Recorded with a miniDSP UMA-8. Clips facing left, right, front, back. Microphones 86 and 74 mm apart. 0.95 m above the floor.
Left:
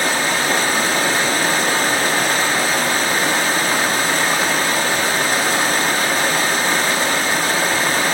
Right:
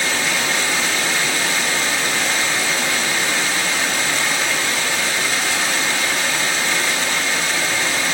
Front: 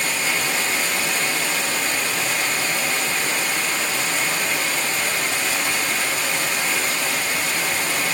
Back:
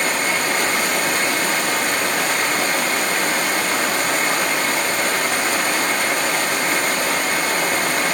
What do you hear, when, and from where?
0.0 s running water: 140° left, 1.0 m